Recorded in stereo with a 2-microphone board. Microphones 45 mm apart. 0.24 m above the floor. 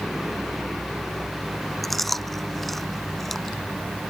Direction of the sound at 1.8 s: 5° left (ahead or behind).